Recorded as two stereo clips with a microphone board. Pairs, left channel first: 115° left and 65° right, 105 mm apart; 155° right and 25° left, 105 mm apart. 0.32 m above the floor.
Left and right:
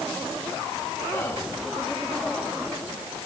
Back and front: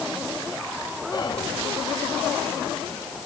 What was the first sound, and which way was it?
Whispering, 175° left.